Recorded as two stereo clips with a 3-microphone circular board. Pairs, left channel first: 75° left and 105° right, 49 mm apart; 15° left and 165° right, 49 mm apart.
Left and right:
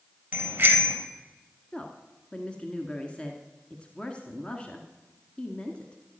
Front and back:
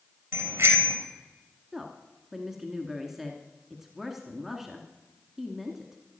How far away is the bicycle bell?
About 3 m.